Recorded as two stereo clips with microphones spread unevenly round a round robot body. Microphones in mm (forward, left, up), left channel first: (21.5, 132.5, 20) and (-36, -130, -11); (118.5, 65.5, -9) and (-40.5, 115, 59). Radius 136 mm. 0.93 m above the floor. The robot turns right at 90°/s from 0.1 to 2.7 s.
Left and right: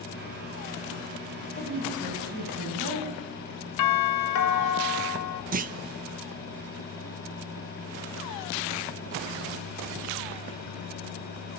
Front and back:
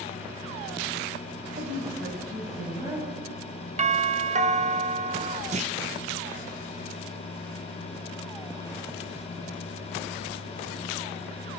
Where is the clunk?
130° right, 0.7 m.